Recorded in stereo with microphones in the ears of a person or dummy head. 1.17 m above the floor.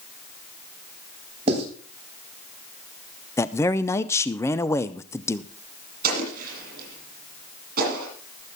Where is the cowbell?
No cowbell in this recording.